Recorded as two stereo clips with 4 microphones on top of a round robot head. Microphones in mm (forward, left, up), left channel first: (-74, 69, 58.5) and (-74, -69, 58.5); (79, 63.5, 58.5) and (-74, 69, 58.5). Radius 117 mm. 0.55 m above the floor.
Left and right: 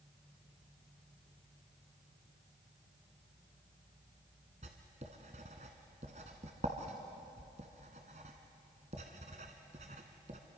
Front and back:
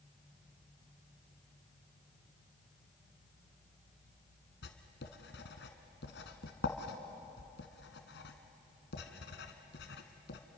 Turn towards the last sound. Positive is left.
turn(degrees=-30)